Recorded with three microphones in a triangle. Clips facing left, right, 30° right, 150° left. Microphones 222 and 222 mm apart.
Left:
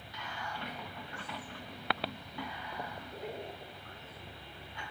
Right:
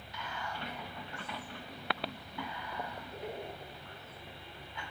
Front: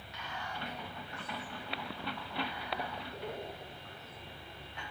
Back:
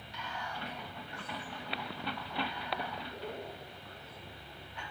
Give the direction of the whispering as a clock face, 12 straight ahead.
5 o'clock.